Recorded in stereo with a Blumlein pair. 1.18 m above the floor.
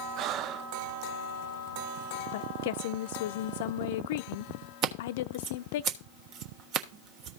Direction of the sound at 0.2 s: 35° right.